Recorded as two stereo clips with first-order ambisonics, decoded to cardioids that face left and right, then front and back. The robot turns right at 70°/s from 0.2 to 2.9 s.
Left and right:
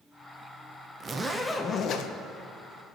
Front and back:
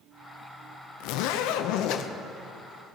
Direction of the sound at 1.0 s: 25° right.